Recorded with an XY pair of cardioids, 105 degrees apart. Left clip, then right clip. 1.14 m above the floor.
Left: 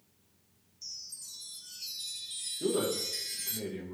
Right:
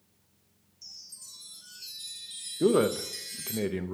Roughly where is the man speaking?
Right.